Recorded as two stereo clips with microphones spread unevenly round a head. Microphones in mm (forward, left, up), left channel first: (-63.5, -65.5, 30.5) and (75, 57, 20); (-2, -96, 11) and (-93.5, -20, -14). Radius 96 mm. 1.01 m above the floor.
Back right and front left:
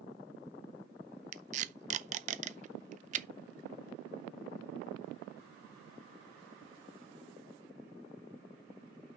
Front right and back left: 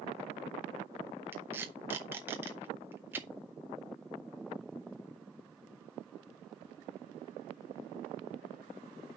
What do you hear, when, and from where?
1.3 s tape being pulled: 80° left, 0.6 m